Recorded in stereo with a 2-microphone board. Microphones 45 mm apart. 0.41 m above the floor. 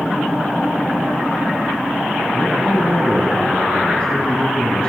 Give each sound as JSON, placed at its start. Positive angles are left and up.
{"t": 2.3, "sound": "a man speaking", "side_deg": 20, "distance_m": 4.5}